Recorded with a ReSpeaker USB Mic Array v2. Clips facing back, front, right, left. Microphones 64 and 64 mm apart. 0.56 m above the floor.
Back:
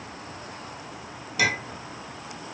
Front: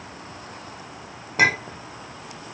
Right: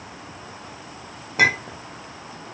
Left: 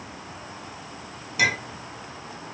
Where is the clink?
45° right, 0.6 m.